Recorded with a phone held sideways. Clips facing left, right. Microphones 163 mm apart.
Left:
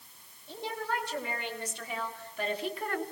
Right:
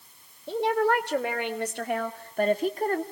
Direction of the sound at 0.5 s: 75° right (ahead or behind).